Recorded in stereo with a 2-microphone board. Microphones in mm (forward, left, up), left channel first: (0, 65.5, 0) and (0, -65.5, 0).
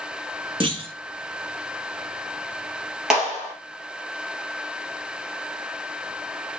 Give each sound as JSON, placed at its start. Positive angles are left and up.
{"t": 0.6, "sound": "a clunk", "side_deg": -45, "distance_m": 0.9}
{"t": 3.1, "sound": "a clap", "side_deg": -5, "distance_m": 2.5}